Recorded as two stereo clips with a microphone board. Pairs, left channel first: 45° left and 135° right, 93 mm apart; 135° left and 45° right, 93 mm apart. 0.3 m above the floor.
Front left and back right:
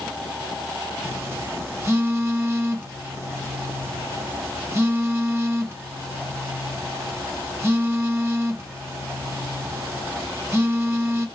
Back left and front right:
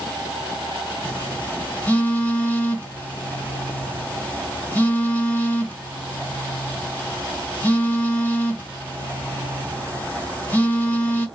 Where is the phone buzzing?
170° right, 1.3 m.